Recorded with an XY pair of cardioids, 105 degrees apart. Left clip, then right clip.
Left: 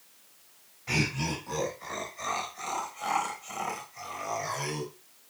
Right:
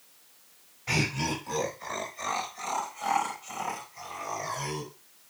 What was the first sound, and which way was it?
Laughter, 20° right.